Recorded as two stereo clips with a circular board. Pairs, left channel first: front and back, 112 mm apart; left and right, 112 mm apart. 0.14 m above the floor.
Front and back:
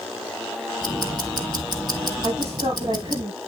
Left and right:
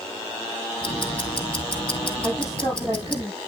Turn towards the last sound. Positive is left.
turn(degrees=150)